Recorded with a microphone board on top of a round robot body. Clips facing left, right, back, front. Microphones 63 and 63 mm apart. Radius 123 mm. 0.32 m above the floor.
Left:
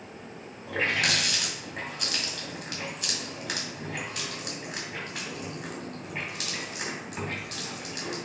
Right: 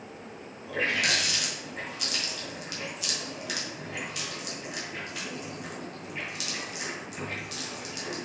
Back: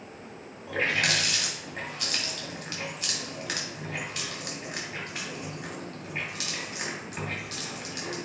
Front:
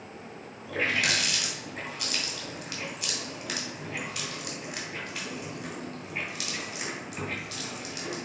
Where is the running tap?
130° left, 2.5 m.